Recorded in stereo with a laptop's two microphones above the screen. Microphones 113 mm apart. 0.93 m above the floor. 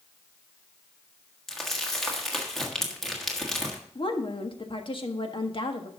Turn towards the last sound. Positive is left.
turn(degrees=50)  # may be behind; listen again after turning